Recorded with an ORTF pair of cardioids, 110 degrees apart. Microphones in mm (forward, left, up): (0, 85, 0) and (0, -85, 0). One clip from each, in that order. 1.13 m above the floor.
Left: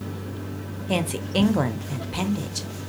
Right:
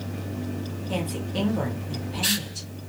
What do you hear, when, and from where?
0.9 s a woman speaking: 40° left, 0.6 m